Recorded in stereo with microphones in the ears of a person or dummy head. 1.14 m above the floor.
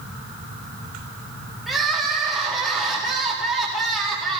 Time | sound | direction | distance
1.7 | crying | 5° right (ahead or behind) | 2 m